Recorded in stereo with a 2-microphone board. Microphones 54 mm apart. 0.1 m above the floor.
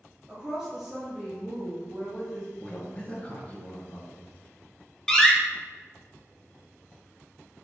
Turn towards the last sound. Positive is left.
turn(degrees=10)  # may be behind; listen again after turning